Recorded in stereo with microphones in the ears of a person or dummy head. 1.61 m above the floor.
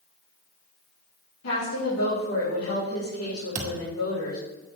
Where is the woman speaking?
85° left, 3 m.